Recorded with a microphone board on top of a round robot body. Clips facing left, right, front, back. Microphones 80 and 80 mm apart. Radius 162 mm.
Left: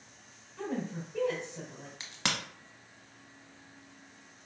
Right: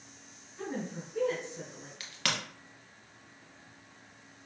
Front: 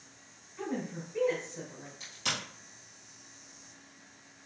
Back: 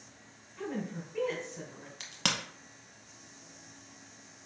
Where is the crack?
160° left, 0.7 m.